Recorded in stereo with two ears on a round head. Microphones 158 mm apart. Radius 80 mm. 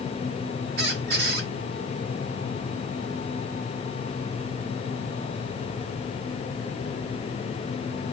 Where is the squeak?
65° right (ahead or behind), 1.3 m.